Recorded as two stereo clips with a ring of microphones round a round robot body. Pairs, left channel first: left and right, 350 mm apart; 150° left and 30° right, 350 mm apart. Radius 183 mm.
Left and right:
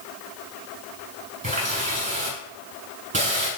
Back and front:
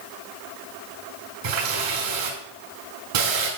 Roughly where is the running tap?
Ahead.